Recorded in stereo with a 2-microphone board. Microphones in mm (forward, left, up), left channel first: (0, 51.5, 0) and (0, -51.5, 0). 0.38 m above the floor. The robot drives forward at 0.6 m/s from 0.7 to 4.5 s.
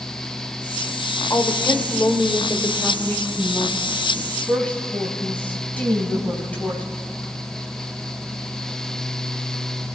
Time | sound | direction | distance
1.3 | a woman speaking | 30° left (ahead or behind) | 1.2 m